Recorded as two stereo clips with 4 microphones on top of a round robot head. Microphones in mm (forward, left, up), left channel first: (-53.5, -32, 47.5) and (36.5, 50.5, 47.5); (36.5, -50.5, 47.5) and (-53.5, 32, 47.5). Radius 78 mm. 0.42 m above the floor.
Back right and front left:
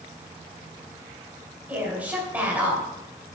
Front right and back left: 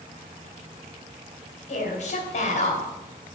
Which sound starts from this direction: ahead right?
A woman speaking, at 1.7 s.